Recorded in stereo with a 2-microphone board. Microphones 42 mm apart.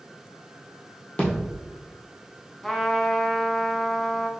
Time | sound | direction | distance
1.2 | a thud | 20° left (ahead or behind) | 1.6 m
2.6 | a trumpet | 5° left (ahead or behind) | 0.5 m